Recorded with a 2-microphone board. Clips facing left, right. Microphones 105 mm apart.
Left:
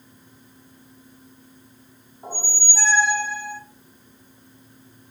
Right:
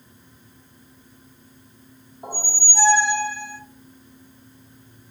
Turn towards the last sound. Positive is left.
turn(degrees=-15)  # may be behind; listen again after turning